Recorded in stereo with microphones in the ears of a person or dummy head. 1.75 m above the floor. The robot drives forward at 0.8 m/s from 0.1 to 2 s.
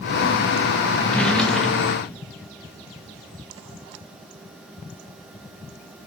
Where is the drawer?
Centre (ahead or behind), 0.9 m.